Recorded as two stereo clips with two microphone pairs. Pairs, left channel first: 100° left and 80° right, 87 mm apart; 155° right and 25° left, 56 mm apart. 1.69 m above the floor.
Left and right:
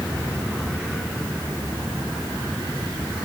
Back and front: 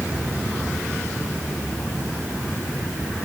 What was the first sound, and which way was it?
Only background noise.